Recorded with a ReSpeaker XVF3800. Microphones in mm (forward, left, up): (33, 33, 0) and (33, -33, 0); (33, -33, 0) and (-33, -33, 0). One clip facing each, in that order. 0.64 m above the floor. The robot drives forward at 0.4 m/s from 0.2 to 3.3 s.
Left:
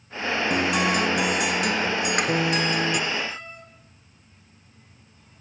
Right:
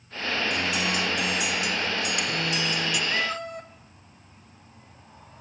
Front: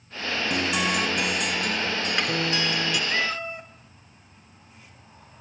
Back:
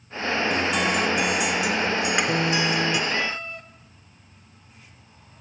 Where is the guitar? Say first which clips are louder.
Left 5 dB, even; 80° left, 1.7 m; by 3.0 s 120° left, 1.9 m.